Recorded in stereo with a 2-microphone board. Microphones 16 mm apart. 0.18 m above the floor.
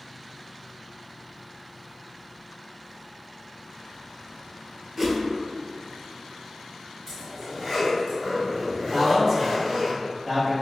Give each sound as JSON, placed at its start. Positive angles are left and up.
{"t": 5.0, "sound": "a whoosh", "side_deg": -25, "distance_m": 0.6}
{"t": 7.1, "sound": "a zipper", "side_deg": -25, "distance_m": 1.7}
{"t": 8.9, "sound": "a man speaking", "side_deg": -20, "distance_m": 1.2}